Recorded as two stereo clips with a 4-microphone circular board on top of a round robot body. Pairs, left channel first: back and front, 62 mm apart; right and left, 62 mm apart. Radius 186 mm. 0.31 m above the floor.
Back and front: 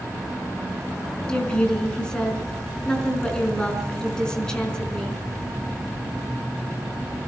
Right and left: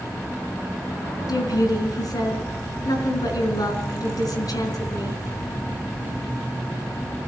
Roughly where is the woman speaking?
Right.